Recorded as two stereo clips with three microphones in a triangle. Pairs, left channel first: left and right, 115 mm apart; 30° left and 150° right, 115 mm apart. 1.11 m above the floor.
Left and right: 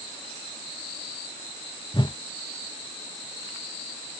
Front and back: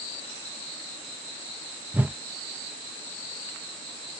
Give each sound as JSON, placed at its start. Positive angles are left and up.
{"t": 1.9, "sound": "a whoosh", "azimuth_deg": 135}